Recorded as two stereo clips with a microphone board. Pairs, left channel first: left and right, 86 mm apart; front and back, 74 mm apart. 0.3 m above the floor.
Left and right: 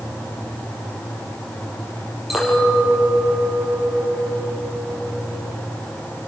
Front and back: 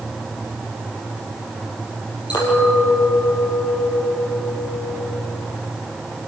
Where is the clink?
5° right, 6 m.